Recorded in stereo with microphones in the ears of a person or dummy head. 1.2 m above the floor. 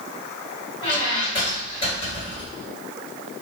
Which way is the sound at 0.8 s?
25° left (ahead or behind).